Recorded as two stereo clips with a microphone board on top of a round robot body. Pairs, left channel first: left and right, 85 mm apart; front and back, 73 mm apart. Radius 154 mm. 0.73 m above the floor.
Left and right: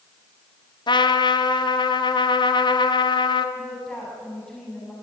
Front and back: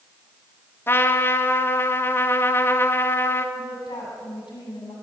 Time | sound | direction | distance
0.9 | a trumpet | 60° left | 1.4 m
3.5 | a woman speaking | 10° left | 7.5 m